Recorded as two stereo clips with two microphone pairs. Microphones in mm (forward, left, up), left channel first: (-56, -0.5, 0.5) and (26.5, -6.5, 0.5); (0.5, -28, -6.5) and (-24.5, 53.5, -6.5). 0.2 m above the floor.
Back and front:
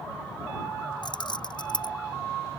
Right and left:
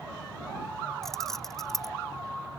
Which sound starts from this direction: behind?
Keys jangling, at 1.0 s.